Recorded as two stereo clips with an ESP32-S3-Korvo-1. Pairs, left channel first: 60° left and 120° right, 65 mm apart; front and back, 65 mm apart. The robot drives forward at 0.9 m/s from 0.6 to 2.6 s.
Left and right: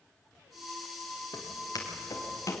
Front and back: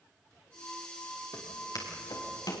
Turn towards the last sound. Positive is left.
turn(degrees=15)